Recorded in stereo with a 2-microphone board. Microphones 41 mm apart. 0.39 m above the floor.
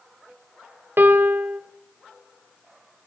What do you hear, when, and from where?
1.0 s a piano: 55° right (ahead or behind), 1.1 m